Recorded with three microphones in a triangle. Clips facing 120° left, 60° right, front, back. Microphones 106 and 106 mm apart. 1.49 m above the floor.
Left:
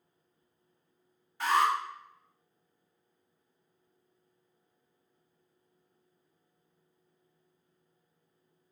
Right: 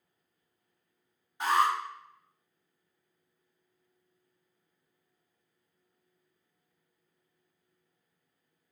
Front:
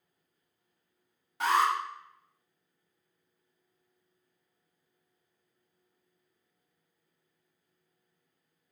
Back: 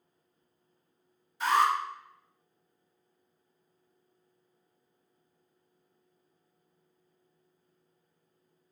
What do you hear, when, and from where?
1.4 s an alarm: 10° left, 1.9 m